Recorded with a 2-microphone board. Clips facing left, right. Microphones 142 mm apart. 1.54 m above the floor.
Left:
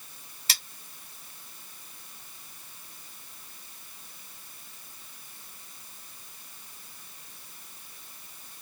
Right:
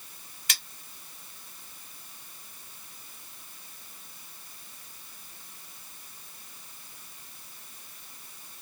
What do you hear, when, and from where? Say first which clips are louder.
0.5 s cutlery clinking: left 1 dB; 35° left (ahead or behind), 0.9 m